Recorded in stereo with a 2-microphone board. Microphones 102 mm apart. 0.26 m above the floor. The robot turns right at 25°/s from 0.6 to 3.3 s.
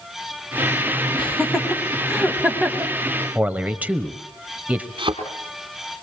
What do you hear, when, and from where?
1.2 s laughter: 10° left (ahead or behind), 1.3 m; by 2.9 s 20° right (ahead or behind), 1.3 m
3.4 s a man speaking: 15° right (ahead or behind), 0.9 m
5.0 s a thud: 50° right (ahead or behind), 3.5 m